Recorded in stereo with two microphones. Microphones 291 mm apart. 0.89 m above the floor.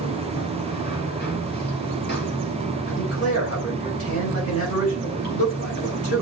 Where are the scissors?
No scissors in this recording.